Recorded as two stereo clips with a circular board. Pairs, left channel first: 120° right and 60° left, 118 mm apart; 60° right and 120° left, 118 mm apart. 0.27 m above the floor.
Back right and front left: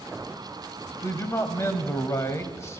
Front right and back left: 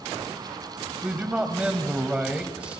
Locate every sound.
1.0 s a man speaking: 170° right, 1.3 m